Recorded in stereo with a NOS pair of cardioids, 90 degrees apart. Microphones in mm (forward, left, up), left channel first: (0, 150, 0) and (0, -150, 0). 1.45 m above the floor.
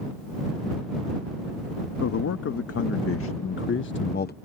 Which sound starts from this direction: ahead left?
A man speaking, at 2.0 s.